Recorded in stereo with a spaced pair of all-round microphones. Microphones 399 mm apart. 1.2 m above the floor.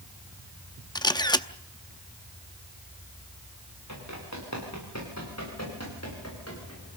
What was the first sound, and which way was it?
A camera shutter, 10° left (ahead or behind).